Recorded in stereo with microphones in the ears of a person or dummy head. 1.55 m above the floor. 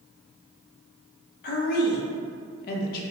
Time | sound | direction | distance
1.4 | a woman speaking | 50° left (ahead or behind) | 0.5 m